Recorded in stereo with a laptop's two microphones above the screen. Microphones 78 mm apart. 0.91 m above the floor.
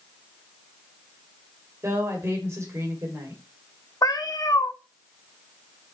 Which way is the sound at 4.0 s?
55° left (ahead or behind).